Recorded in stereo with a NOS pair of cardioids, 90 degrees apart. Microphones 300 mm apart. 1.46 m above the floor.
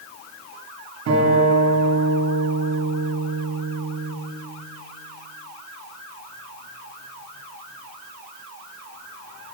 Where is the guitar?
65° right, 4 m.